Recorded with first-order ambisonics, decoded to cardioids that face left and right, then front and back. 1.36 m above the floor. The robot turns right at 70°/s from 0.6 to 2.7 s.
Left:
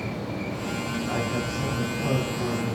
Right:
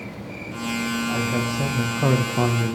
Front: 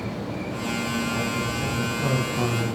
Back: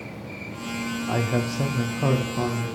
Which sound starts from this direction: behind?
A man speaking, at 1.1 s.